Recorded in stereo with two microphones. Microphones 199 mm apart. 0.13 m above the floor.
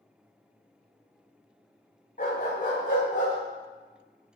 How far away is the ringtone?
I don't hear a ringtone.